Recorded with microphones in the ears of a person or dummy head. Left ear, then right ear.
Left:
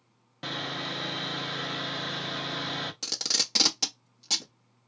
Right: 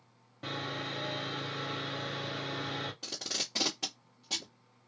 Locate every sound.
0.4 s sawing: 40° left (ahead or behind), 0.7 m
3.0 s tape being pulled: 70° left (ahead or behind), 1.0 m